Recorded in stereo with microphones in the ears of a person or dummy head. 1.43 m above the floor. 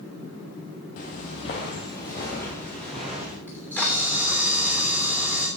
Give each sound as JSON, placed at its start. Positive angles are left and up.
{"t": 1.0, "sound": "footsteps", "side_deg": 35, "distance_m": 1.8}
{"t": 3.5, "sound": "a camera shutter", "side_deg": 5, "distance_m": 3.0}